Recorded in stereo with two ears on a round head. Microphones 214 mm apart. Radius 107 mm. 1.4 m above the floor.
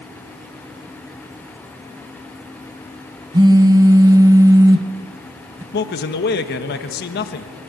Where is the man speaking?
45° left (ahead or behind), 1.4 m.